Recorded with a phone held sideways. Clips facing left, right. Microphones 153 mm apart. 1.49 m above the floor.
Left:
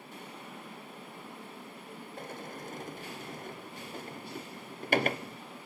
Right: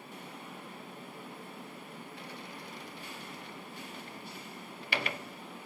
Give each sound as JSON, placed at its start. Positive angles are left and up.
{"t": 2.2, "sound": "a sliding door", "side_deg": 45, "distance_m": 0.5}